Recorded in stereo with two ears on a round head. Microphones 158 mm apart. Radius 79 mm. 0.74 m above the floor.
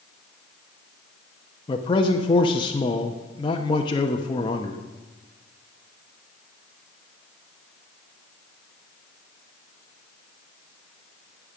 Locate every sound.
1.7 s a man speaking: 25° left (ahead or behind), 0.8 m